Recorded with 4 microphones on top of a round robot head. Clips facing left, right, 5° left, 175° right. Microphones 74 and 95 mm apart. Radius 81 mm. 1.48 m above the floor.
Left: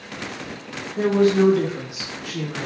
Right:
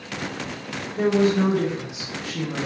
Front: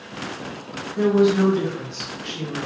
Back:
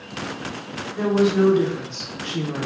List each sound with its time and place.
1.0 s a woman speaking: 85° left, 0.9 m; by 2.7 s straight behind, 0.5 m